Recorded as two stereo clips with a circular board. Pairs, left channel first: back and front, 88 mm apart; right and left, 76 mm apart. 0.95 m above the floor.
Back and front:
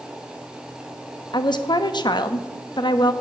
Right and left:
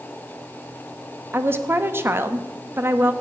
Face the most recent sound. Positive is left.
turn(degrees=145)